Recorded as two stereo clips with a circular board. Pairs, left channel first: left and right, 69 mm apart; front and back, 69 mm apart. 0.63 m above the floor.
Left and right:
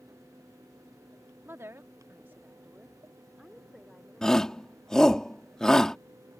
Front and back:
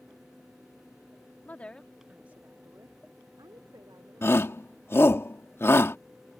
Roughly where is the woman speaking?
Ahead right.